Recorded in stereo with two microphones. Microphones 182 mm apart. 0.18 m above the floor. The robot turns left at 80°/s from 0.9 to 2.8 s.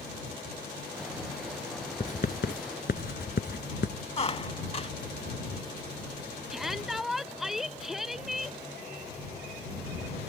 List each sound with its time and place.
2.0 s writing: 35° left (ahead or behind); by 4.0 s 65° left (ahead or behind)
4.2 s a squeak: 35° left (ahead or behind)
6.5 s a shout: centre (ahead or behind)